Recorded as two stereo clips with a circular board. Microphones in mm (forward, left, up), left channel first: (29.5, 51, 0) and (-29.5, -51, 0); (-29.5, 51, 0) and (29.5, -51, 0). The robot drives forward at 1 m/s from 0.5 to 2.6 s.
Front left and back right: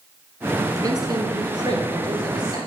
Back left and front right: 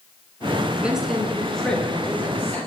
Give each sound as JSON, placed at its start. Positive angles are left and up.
{"t": 0.8, "sound": "a man speaking", "azimuth_deg": -130, "distance_m": 1.3}